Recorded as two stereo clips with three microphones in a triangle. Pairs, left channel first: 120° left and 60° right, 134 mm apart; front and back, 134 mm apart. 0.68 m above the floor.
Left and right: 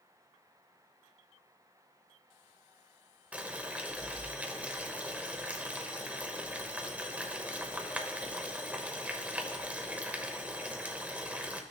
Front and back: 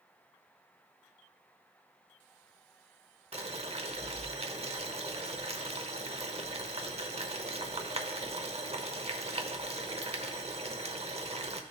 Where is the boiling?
140° right, 0.9 m.